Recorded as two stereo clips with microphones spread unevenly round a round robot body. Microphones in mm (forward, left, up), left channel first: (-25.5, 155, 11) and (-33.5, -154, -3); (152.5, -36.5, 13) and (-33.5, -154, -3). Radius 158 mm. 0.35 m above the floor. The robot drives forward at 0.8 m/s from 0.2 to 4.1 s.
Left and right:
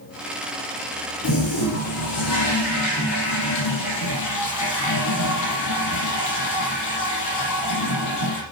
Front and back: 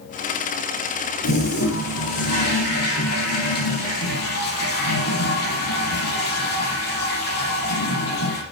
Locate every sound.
1.2 s a toilet flushing: 40° left, 8.5 m; by 8.4 s 55° left, 7 m